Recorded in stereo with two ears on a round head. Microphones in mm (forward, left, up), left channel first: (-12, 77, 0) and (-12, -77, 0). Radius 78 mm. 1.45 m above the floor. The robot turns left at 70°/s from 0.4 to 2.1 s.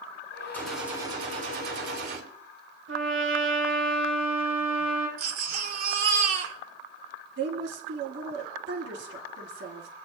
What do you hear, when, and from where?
0.5 s a gunshot: 10° left, 3.5 m; by 2.2 s 95° right, 3.5 m
2.9 s a trumpet: 85° right, 7.5 m
5.2 s a baby crying: 60° right (ahead or behind), 2 m
7.4 s a woman speaking: 80° right, 3 m